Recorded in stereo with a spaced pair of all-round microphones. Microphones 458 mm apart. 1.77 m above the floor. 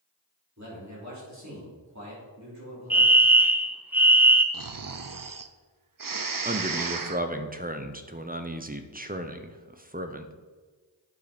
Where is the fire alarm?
5° right (ahead or behind), 0.7 m.